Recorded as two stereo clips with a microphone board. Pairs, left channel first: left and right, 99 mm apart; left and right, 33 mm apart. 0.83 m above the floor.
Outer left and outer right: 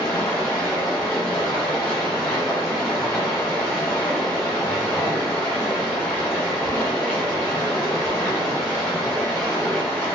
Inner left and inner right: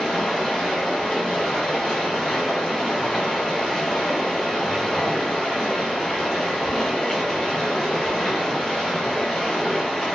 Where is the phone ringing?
I don't hear a phone ringing.